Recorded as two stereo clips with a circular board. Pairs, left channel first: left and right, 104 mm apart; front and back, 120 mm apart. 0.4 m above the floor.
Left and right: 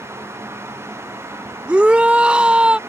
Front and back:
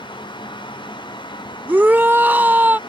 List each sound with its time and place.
1.7 s a shout: 145° right